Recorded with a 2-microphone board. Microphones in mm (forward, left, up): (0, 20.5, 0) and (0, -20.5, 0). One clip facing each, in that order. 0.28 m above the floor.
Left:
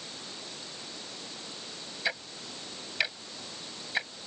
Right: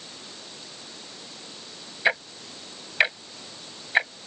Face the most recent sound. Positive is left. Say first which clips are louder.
# right 10 dB
turn(degrees=-40)  # may be behind; listen again after turning